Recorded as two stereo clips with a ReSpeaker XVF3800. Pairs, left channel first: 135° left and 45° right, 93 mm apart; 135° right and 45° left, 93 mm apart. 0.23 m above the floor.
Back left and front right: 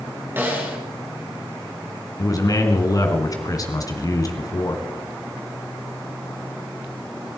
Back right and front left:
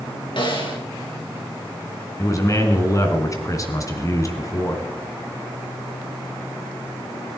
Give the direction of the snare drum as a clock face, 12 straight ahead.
4 o'clock.